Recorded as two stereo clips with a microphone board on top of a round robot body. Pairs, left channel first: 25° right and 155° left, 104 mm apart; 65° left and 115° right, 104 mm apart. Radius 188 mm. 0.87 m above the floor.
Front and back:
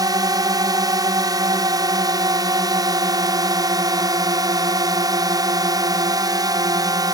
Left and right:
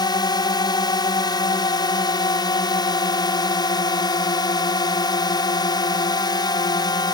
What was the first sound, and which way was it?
A drone, 110° left.